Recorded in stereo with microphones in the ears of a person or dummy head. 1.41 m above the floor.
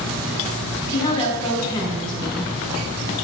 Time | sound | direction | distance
0.9 | a woman speaking | 25° left (ahead or behind) | 1.8 m